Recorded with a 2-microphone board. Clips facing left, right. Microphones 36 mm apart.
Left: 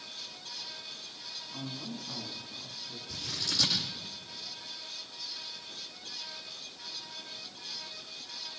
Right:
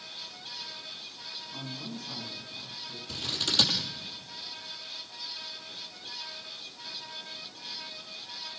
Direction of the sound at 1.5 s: Centre (ahead or behind).